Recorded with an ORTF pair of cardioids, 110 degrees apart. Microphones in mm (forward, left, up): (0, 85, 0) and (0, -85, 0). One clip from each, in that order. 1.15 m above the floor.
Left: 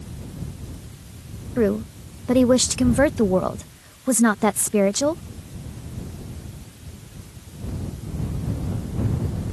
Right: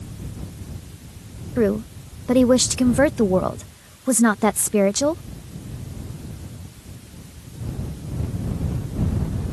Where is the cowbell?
No cowbell in this recording.